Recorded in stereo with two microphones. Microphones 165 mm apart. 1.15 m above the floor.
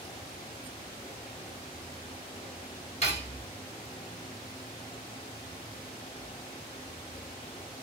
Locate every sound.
3.0 s cutlery clinking: 45° left (ahead or behind), 2.5 m